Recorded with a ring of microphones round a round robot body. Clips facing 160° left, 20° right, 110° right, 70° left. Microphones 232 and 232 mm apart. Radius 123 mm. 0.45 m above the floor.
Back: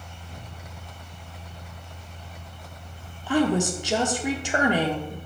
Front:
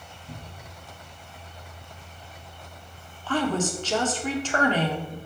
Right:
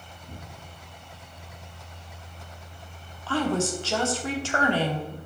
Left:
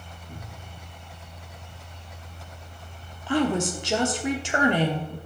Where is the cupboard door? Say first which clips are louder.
Front 3 dB, even; 80° right, 2 m.